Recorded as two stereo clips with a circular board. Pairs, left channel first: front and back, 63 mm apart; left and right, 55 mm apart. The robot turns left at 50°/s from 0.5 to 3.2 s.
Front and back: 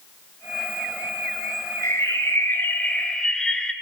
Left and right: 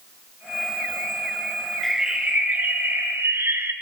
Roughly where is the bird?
Ahead.